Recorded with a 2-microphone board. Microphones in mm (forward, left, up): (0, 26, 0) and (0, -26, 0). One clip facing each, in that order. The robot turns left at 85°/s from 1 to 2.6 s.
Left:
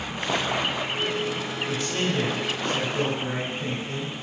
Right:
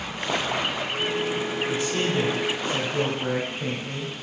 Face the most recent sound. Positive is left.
turn(degrees=-40)